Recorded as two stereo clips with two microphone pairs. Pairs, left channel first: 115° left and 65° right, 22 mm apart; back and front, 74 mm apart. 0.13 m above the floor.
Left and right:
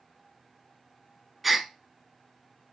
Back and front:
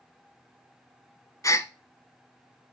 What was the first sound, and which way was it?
A gasp, 155° right.